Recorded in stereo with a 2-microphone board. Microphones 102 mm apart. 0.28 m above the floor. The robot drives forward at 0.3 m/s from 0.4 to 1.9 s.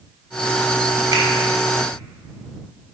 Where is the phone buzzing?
No phone buzzing in this recording.